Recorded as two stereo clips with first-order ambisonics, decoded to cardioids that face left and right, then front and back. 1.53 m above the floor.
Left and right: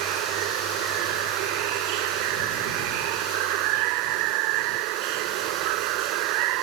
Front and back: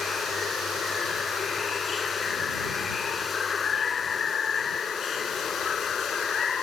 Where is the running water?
70° right.